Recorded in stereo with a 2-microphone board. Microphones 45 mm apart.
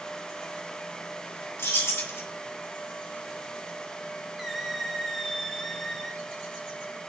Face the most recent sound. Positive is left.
turn(degrees=0)  # may be behind; listen again after turning